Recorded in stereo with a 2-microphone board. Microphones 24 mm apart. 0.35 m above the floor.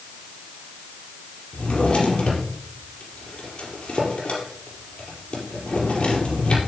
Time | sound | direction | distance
1.5 | a drawer | 55° left (ahead or behind) | 4 m